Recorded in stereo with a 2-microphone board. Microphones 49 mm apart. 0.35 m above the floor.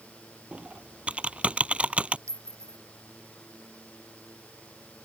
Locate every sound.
0.5 s typing on a keyboard: 25° right (ahead or behind)
2.3 s a clink: 85° right